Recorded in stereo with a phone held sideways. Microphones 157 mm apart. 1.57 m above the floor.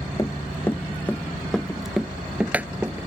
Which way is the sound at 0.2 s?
20° left (ahead or behind).